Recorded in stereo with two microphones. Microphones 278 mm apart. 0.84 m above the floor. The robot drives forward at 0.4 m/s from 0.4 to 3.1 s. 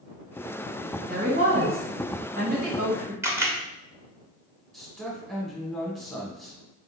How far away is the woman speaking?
About 1.0 m.